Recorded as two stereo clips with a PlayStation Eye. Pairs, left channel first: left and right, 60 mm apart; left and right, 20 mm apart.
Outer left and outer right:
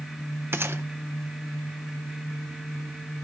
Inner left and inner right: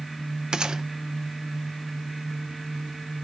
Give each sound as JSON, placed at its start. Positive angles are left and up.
{"t": 0.5, "sound": "a gunshot", "side_deg": -40, "distance_m": 0.8}